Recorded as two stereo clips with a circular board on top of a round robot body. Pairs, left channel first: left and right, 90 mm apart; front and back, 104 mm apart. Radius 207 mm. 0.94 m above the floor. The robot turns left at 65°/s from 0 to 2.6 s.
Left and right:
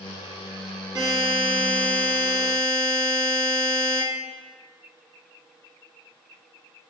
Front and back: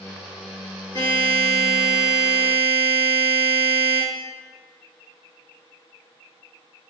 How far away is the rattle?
No rattle in this recording.